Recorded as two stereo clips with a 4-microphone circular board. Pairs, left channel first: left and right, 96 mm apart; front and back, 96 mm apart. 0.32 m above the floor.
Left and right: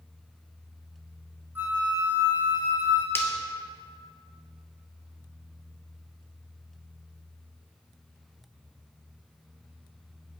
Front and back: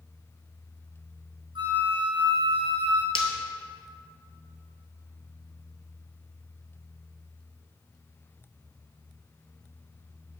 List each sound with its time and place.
1.6 s a flute: 160° right, 1.2 m
3.1 s breaking glass: 25° left, 1.1 m